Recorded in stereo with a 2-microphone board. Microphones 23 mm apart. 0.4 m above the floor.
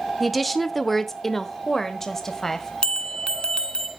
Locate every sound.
0.2 s a woman speaking: centre (ahead or behind), 0.8 m; by 2.7 s 15° left (ahead or behind), 1.8 m
2.8 s a bell: 50° left (ahead or behind), 1.6 m